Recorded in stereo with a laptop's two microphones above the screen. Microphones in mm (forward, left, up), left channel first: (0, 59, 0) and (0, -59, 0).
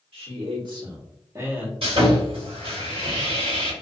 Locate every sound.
0.1 s a man speaking: 60° right (ahead or behind), 1.4 m; by 1.7 s 10° right (ahead or behind), 0.8 m
1.8 s sawing: 55° right (ahead or behind), 1.5 m